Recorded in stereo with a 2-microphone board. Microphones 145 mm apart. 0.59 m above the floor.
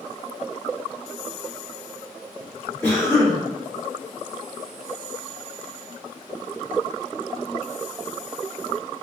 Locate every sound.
2.8 s a cough: 10° left (ahead or behind), 1.5 m